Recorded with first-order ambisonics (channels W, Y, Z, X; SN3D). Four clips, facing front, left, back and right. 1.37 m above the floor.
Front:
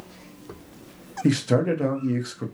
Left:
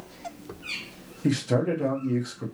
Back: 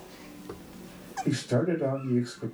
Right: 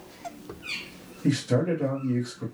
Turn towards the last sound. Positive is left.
turn(degrees=10)